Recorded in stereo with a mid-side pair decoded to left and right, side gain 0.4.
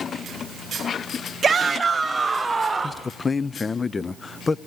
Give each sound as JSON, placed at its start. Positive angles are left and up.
{"t": 1.4, "sound": "a shout", "azimuth_deg": -40, "distance_m": 0.7}
{"t": 2.8, "sound": "a man speaking", "azimuth_deg": 35, "distance_m": 0.6}